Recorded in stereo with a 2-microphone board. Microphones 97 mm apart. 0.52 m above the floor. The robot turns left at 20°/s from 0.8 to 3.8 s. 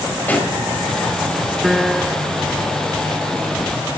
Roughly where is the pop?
Centre.